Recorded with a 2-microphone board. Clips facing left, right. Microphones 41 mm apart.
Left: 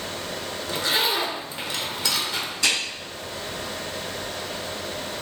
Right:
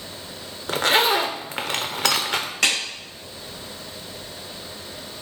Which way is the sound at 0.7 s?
55° right (ahead or behind).